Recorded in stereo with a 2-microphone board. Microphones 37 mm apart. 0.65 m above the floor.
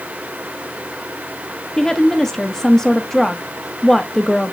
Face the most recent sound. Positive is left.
turn(degrees=15)  # may be behind; listen again after turning